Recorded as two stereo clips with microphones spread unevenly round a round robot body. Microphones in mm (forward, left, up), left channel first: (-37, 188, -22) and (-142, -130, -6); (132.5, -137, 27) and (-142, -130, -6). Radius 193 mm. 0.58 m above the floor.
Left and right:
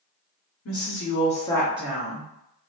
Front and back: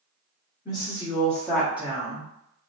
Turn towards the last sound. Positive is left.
turn(degrees=-135)